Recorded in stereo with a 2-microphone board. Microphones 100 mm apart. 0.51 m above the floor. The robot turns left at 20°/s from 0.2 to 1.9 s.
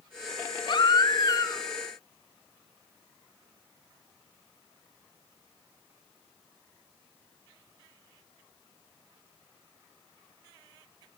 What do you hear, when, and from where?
0.7 s a baby crying: 55° left (ahead or behind), 2 m; by 1.6 s 35° left (ahead or behind), 2 m